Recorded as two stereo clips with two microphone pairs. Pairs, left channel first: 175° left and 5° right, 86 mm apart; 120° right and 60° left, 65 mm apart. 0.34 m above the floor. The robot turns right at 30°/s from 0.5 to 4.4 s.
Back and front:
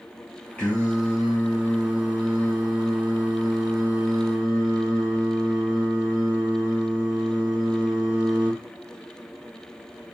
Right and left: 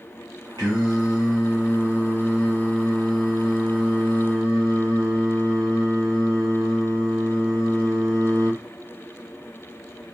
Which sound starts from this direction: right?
Singing, at 0.6 s.